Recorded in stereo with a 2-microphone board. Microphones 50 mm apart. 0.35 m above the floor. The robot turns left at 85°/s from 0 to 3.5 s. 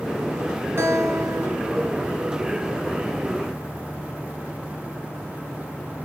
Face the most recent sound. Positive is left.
turn(degrees=70)